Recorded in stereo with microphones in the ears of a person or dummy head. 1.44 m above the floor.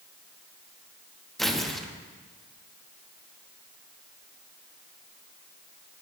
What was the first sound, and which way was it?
Tearing paper, centre (ahead or behind).